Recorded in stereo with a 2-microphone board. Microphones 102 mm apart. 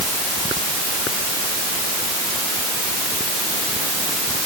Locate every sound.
Only background noise.